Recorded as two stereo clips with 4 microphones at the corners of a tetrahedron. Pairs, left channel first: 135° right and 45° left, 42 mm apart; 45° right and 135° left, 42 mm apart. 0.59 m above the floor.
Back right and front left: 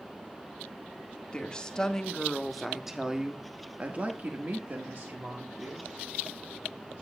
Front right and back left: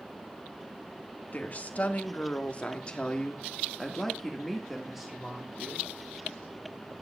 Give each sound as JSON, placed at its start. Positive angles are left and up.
{"t": 1.3, "sound": "a woman speaking", "azimuth_deg": -75, "distance_m": 1.7}